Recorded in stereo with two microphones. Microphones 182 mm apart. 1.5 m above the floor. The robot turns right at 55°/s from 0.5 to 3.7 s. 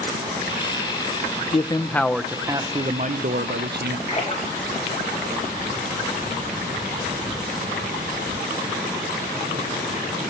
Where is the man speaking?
145° left, 0.7 m; by 4.0 s 95° right, 0.7 m.